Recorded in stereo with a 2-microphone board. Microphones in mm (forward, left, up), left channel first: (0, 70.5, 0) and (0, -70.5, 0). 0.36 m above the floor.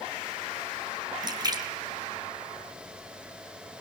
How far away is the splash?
About 3.5 m.